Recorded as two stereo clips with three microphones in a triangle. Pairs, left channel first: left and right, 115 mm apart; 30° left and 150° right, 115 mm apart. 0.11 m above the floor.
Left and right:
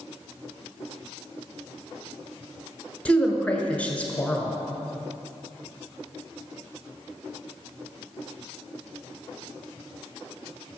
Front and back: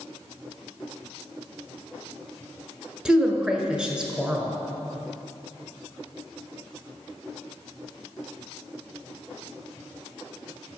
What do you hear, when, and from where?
3.0 s a woman speaking: 145° left, 1.2 m